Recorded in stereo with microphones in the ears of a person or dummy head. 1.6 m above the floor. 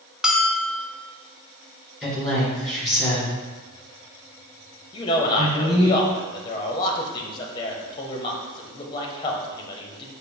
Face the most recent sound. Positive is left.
turn(degrees=25)  # may be behind; listen again after turning